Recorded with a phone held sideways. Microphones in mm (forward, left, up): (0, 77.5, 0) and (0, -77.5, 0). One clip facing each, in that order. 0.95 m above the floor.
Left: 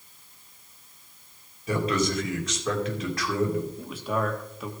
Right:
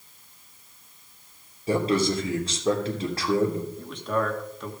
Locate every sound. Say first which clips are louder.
1.7 s a man speaking: right 3 dB; 30° right (ahead or behind), 3 m
3.8 s a man speaking: right 1 dB; 5° left (ahead or behind), 2 m